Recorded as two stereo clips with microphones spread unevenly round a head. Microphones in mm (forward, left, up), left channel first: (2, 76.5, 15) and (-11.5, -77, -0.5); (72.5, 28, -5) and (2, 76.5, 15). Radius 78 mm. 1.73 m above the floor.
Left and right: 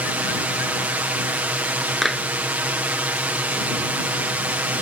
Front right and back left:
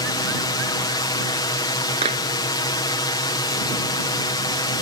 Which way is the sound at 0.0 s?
15° right.